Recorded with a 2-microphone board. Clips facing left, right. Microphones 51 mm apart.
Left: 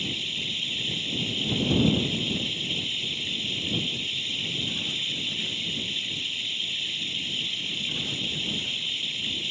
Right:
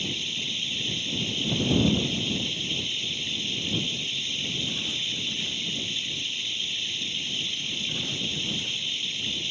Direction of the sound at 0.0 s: 5° left (ahead or behind).